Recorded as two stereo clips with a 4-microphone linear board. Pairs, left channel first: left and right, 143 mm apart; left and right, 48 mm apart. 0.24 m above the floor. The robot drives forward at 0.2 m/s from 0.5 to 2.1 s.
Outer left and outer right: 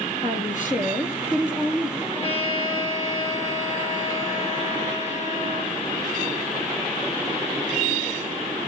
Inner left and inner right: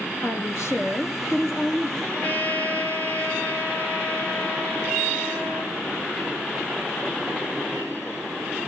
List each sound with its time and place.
0.2 s a woman speaking: 65° left (ahead or behind), 5.5 m; by 1.9 s 60° left (ahead or behind), 5.5 m
2.0 s a trumpet: 45° left (ahead or behind), 6 m